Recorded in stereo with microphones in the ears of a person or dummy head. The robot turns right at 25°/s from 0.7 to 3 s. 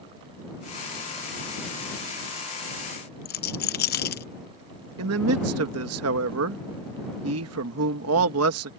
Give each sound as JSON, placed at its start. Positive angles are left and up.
{"t": 3.2, "sound": "a rattle", "side_deg": 45}
{"t": 5.0, "sound": "a man speaking", "side_deg": -70}